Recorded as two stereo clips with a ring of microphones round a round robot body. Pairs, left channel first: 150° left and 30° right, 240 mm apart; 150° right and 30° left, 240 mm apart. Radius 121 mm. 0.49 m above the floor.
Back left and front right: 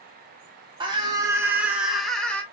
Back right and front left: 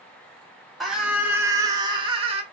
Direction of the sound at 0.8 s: 60° right.